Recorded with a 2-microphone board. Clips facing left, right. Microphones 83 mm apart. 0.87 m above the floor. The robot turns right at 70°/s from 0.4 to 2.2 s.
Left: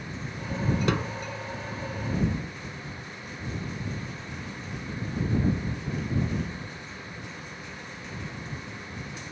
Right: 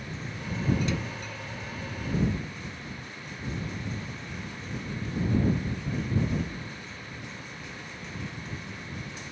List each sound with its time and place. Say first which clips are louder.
0.9 s a snare drum: left 5 dB; 65° left (ahead or behind); by 1.1 s 75° left (ahead or behind)